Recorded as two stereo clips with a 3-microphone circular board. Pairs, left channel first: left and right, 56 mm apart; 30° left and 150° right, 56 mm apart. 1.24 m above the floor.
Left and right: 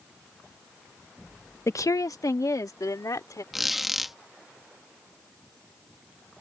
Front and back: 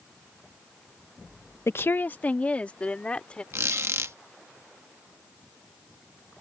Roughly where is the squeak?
Behind.